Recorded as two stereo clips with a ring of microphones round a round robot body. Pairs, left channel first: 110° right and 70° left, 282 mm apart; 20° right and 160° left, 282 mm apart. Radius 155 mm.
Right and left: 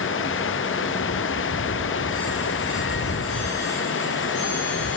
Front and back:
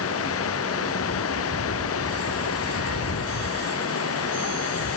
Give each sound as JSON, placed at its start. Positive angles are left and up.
{"t": 0.0, "sound": "running water", "azimuth_deg": -65}